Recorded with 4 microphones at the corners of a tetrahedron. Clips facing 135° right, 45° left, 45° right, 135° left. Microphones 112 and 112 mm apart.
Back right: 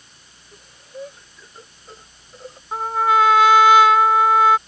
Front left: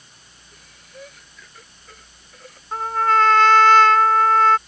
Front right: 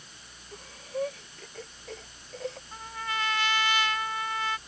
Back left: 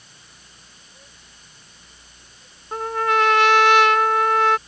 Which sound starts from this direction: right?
Breathing, at 0.5 s.